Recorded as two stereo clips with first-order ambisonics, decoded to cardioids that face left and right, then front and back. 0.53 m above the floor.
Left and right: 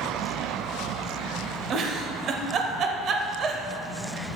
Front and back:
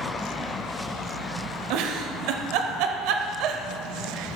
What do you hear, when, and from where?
1.7 s a giggle: 150° right, 0.5 m